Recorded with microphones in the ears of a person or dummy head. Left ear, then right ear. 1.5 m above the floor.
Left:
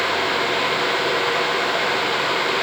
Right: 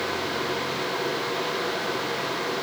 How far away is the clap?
No clap in this recording.